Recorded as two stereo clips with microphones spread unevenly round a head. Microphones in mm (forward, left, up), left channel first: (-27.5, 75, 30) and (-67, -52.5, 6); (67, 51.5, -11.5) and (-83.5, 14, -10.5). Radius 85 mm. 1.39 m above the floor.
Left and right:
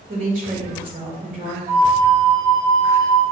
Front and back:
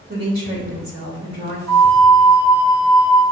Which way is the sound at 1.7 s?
140° right.